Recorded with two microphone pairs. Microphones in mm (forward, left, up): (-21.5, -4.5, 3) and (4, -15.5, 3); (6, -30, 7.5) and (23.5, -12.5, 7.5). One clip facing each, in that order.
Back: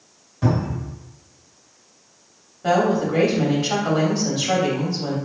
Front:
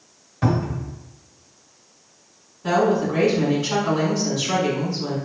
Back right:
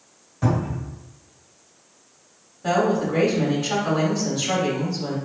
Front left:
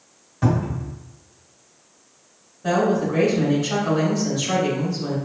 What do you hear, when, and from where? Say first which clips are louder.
0.4 s a cupboard door: even, front left 1 dB; 5° left, 1.5 m
2.6 s a woman speaking: even, front left 1 dB; 165° left, 2.0 m